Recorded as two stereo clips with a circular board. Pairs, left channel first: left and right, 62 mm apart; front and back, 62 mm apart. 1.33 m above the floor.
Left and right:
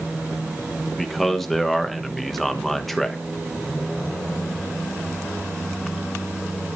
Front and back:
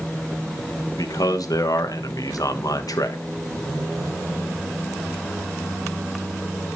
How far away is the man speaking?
About 1.2 m.